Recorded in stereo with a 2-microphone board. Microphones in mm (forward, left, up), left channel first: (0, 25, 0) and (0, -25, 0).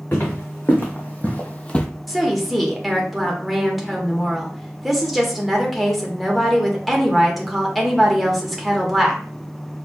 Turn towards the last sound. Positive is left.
turn(degrees=0)  # may be behind; listen again after turning